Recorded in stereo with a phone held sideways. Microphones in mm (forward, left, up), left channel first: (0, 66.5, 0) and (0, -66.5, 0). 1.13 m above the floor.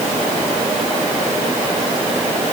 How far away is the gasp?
No gasp in this recording.